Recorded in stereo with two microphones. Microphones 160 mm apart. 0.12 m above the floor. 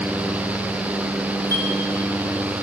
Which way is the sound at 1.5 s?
75° right (ahead or behind).